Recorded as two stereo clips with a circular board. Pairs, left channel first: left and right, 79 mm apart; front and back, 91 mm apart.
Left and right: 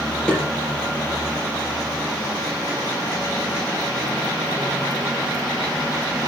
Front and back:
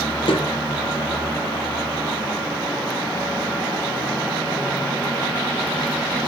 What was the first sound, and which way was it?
A snare drum, 15° left.